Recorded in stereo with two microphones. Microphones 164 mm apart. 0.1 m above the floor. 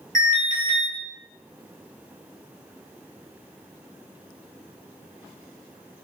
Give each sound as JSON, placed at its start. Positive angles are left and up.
{"t": 0.1, "sound": "an alarm", "side_deg": -55, "distance_m": 1.5}